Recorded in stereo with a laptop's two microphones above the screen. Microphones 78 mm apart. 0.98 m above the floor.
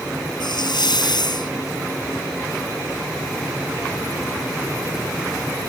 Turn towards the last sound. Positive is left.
turn(degrees=85)